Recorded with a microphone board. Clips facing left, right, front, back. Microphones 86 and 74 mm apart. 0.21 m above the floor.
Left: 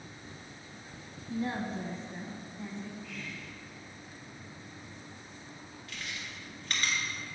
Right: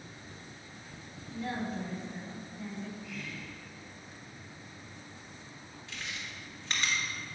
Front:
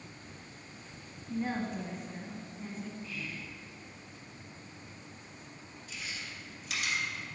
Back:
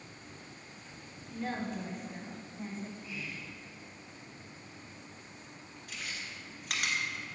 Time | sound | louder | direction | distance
1.3 | a woman speaking | left 2 dB, front 2 dB | 55° left | 1.3 m
3.0 | whispering | right 1 dB, front 1 dB | 170° right | 1.0 m
5.9 | chewing | even, even | 155° right | 1.7 m